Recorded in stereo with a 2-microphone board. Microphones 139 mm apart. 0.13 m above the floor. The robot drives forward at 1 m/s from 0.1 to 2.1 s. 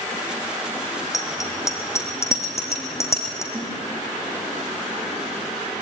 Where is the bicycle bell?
25° left (ahead or behind), 3.5 m; by 3.4 s 20° left (ahead or behind), 4.5 m.